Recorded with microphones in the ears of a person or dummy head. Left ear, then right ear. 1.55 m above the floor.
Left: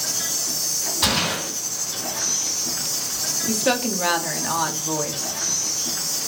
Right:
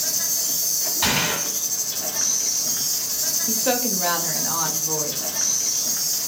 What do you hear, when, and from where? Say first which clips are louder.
0.0 s an insect: even; 55° right (ahead or behind), 1.4 m
1.0 s a gunshot: even; 20° right (ahead or behind), 2.5 m
3.5 s a woman speaking: left 3 dB; 15° left (ahead or behind), 0.7 m